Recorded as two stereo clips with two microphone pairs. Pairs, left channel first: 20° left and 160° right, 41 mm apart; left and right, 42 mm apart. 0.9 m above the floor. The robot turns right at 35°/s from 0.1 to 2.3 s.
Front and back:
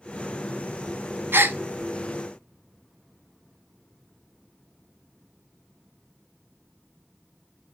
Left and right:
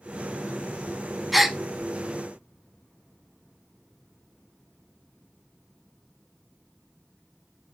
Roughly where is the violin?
I don't hear a violin.